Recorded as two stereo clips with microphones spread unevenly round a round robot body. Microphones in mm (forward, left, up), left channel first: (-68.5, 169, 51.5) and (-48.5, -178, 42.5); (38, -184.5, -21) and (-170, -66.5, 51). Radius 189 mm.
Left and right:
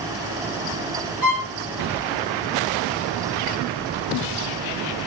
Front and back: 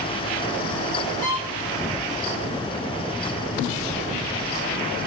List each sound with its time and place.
1.2 s a violin: 70° left, 1.7 m